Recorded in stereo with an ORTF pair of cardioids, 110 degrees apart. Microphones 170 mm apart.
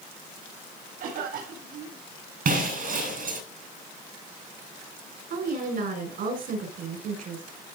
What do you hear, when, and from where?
1.0 s a cough: 65° right, 4.5 m
2.5 s breaking glass: 65° right, 5 m
5.3 s a woman speaking: 65° right, 5.5 m